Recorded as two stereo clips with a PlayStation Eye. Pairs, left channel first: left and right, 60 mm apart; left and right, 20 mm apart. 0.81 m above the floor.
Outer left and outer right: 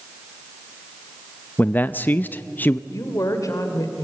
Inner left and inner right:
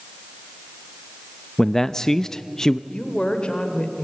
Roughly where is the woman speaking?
Left.